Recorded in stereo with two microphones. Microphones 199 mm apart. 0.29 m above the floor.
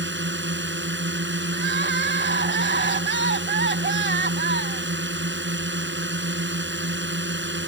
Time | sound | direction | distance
0.0 | a drone | 70° right (ahead or behind) | ?
1.5 | crying | 65° right (ahead or behind) | ?